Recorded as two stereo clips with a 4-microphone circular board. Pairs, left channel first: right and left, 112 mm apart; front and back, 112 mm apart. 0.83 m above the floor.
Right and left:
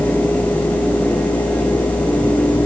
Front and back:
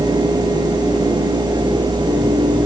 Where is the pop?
No pop in this recording.